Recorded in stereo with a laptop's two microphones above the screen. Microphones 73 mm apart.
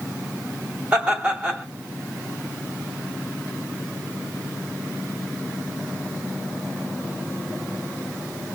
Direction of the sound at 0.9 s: 15° right (ahead or behind).